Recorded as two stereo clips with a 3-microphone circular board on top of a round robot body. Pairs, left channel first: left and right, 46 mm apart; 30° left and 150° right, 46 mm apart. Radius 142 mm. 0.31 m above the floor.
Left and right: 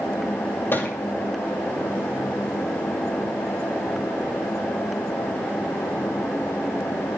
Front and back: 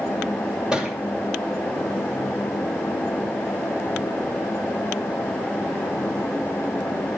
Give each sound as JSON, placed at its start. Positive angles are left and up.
{"t": 0.7, "sound": "a thud", "azimuth_deg": 135, "distance_m": 2.5}